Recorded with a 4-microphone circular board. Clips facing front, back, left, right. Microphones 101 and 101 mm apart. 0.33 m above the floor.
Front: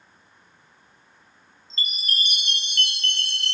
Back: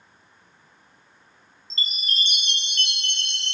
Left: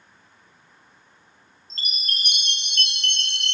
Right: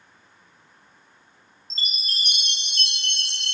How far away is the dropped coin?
I don't hear a dropped coin.